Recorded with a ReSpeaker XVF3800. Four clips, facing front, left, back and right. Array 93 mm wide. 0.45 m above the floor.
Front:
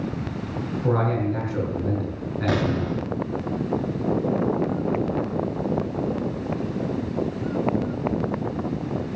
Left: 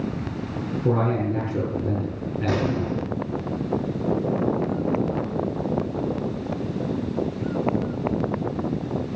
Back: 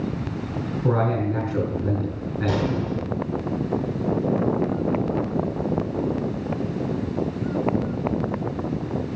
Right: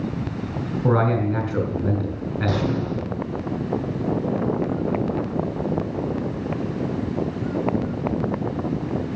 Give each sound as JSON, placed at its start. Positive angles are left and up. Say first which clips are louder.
{"t": 0.8, "sound": "a man speaking", "louder": "right 3 dB, back 1 dB", "azimuth_deg": -90, "distance_m": 3.0}
{"t": 2.5, "sound": "an explosion", "louder": "left 1 dB, front 1 dB", "azimuth_deg": 10, "distance_m": 3.0}